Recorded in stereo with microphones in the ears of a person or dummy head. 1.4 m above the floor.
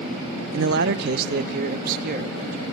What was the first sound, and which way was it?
A man speaking, 60° right (ahead or behind).